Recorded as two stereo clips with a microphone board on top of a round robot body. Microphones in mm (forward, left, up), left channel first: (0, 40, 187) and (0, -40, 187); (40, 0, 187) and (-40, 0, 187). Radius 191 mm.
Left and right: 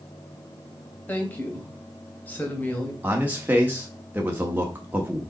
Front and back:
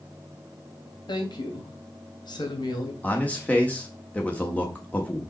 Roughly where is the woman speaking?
Ahead.